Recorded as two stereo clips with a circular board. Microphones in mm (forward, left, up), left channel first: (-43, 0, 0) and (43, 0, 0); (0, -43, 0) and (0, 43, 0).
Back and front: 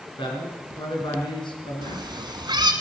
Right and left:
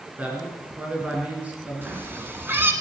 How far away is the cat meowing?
About 1.4 m.